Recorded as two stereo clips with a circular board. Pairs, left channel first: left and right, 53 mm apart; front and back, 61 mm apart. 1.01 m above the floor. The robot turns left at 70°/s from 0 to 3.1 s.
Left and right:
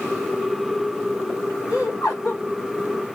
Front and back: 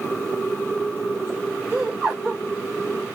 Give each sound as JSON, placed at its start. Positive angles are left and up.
{"t": 1.7, "sound": "laughter", "azimuth_deg": 115, "distance_m": 1.6}